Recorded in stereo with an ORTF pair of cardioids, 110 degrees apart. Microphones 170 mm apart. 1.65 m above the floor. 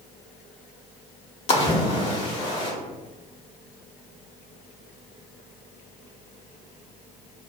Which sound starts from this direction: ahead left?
A splash, at 1.5 s.